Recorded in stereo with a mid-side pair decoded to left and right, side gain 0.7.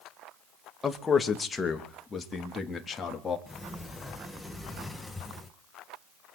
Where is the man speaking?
20° left, 3 m; by 3.4 s 30° left, 4 m.